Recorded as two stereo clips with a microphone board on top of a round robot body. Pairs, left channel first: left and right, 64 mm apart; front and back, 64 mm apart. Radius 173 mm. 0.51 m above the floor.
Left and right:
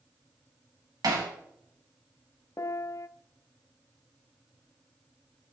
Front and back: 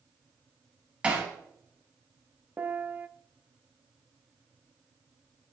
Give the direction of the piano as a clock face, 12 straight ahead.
8 o'clock.